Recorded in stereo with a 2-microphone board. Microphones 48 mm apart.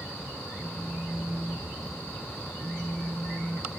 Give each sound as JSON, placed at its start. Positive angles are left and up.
{"t": 0.6, "sound": "a phone buzzing", "side_deg": -60, "distance_m": 3.0}